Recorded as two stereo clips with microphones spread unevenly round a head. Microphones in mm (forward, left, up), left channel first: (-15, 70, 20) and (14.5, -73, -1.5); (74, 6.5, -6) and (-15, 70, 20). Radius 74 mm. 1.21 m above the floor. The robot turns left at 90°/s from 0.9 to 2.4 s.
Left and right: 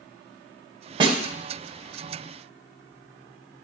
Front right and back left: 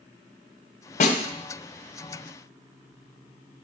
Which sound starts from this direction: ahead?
A snare drum, at 1.0 s.